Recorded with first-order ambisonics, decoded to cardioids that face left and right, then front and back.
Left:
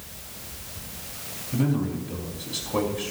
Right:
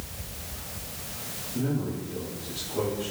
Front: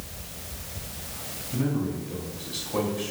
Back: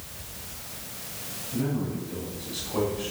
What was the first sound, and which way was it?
A man speaking, 75° left.